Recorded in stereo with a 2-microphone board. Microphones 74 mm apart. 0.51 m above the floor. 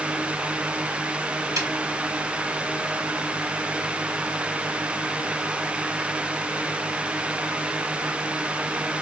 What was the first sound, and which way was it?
A snare drum, 55° right (ahead or behind).